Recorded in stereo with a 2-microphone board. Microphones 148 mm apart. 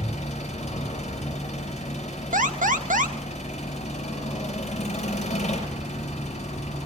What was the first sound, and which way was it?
An engine running, 55° left (ahead or behind).